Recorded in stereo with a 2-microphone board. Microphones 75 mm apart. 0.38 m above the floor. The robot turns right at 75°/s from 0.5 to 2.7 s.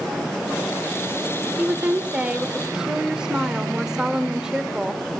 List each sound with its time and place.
1.6 s a woman speaking: 20° right (ahead or behind), 0.9 m; by 5.0 s 10° right (ahead or behind), 0.9 m